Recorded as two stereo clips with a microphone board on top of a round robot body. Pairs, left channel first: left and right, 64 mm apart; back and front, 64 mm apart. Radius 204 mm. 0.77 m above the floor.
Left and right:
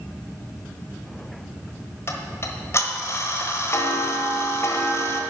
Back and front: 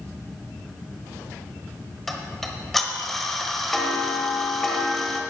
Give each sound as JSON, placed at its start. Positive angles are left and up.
{"t": 2.1, "sound": "ticking", "azimuth_deg": 95, "distance_m": 1.2}